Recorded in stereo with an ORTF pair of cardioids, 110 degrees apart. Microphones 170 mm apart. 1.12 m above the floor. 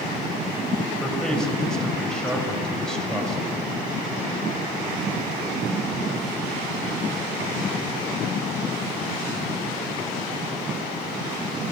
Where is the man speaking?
5° left, 5 m.